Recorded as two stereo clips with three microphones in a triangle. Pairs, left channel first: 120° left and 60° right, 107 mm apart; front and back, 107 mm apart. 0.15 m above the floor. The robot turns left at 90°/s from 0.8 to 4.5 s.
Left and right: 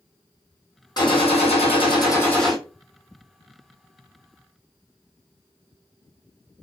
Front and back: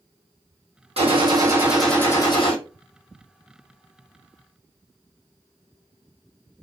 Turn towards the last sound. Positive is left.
turn(degrees=-150)